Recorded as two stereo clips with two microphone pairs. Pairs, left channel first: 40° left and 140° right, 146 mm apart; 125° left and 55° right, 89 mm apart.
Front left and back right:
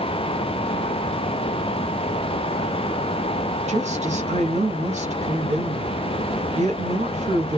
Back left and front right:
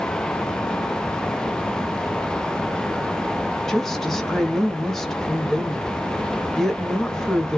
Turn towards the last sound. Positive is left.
turn(degrees=-145)